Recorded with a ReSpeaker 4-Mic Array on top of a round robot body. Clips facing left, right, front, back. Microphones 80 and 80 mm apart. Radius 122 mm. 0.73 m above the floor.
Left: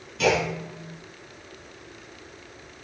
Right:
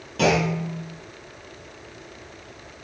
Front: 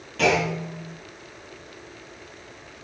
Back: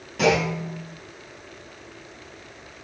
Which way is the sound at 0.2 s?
100° right.